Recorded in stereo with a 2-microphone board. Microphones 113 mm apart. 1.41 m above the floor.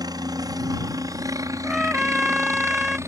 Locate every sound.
0.0 s a helicopter: 40° right (ahead or behind); by 3.1 s 25° right (ahead or behind)
1.6 s a trumpet: 5° right (ahead or behind)